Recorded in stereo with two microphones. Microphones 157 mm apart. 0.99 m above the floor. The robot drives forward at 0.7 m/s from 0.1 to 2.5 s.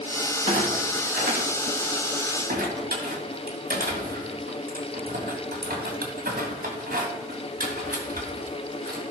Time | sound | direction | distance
0.5 | a clunk | 60° right (ahead or behind) | 3 m